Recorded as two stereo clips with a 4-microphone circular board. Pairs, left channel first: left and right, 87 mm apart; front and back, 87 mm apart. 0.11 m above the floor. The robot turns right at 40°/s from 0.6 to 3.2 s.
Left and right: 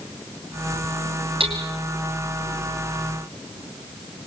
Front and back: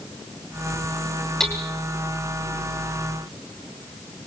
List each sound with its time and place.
1.4 s hammering: 85° right, 2.5 m; by 1.6 s 80° right, 2.5 m